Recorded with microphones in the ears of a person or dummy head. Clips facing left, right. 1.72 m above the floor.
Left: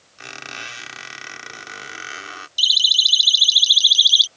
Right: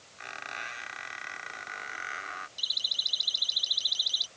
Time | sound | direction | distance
0.2 | a squeak | 50° left (ahead or behind) | ?
2.6 | a siren | 45° left (ahead or behind) | ?